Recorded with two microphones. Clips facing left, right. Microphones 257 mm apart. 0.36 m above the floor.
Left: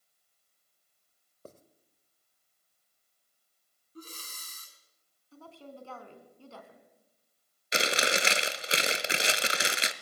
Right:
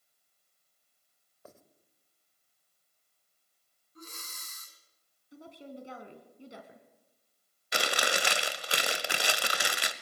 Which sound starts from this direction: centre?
A woman speaking, at 5.3 s.